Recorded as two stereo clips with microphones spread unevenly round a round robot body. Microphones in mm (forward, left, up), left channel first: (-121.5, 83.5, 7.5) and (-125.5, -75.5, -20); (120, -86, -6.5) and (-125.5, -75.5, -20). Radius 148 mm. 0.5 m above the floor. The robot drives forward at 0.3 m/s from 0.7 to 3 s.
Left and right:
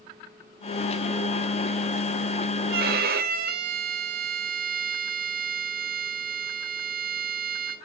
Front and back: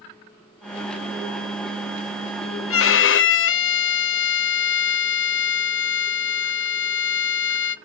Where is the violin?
40° right, 0.7 m; by 7.8 s 50° right, 0.6 m.